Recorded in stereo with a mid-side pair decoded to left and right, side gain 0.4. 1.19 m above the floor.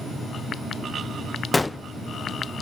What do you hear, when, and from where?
1.5 s a gunshot: 20° left, 0.6 m